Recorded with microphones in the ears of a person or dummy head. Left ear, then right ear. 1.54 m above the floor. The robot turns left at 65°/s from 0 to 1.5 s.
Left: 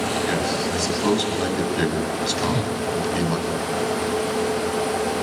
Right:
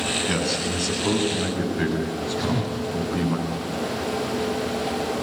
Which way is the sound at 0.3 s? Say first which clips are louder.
Left 2 dB; 155° left.